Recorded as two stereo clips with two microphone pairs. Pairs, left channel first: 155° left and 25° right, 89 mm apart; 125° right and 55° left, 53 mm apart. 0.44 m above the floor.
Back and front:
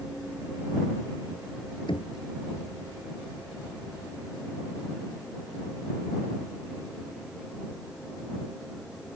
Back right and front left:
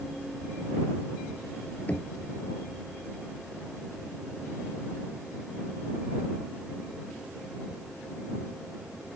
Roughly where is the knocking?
Behind.